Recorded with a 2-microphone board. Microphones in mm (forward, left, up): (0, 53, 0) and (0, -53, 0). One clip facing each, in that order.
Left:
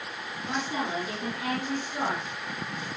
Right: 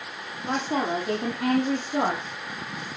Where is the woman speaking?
55° right (ahead or behind), 6 m; by 2.2 s 70° right (ahead or behind), 6 m.